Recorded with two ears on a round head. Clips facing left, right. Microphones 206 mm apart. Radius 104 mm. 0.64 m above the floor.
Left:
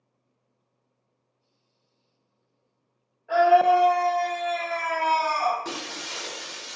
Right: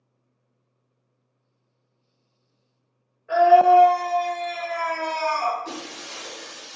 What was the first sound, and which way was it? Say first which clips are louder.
A scream: right 4 dB; 10° right (ahead or behind).